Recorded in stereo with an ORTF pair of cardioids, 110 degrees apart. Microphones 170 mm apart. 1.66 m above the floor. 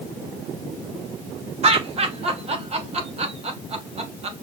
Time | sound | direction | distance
1.6 | laughter | 40° right | 3.5 m